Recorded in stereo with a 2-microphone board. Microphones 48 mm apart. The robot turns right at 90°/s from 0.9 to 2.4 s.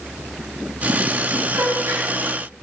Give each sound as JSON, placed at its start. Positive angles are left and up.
{"t": 1.5, "sound": "a gasp", "side_deg": -70, "distance_m": 3.5}